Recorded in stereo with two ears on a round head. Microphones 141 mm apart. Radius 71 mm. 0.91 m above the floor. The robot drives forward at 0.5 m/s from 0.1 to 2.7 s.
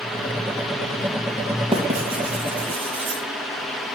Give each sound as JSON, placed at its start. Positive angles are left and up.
{"t": 1.7, "sound": "writing", "side_deg": -40, "distance_m": 3.5}